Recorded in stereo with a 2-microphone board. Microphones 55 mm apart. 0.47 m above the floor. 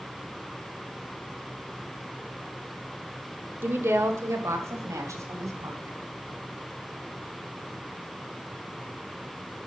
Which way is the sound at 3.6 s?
40° right (ahead or behind).